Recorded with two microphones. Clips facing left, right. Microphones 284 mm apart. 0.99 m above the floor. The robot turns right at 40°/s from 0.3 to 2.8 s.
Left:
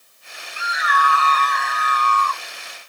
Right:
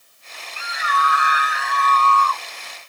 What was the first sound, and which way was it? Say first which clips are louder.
A scream: left 2 dB; 45° right.